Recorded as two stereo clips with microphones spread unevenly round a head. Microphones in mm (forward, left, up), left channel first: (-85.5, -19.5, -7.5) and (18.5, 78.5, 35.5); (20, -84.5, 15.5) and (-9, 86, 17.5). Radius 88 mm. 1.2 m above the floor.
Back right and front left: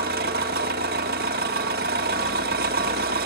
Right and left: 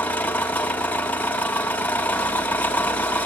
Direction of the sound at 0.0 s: Straight ahead.